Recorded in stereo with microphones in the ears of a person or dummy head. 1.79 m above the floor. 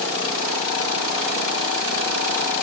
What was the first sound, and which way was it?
Only background noise.